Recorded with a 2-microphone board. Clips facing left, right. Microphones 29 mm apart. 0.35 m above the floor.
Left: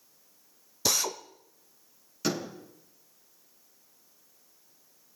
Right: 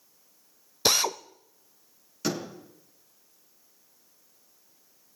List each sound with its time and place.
0.8 s a drill: 45° right (ahead or behind), 0.5 m
2.2 s a door slam: centre (ahead or behind), 5 m